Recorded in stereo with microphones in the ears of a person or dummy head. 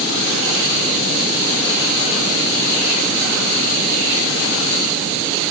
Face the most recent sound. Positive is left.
No sound to turn to.